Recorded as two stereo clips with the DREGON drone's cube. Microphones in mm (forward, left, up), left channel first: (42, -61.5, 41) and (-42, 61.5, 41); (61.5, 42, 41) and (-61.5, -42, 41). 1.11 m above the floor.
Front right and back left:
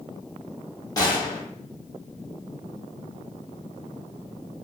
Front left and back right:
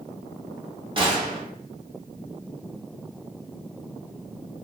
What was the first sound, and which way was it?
A gunshot, 110° right.